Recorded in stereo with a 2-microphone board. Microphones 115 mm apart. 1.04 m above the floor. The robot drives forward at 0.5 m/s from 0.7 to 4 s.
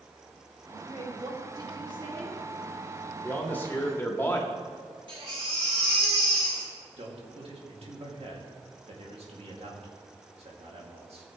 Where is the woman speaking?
50° right (ahead or behind), 2.5 m; by 2.4 s 40° right (ahead or behind), 3 m.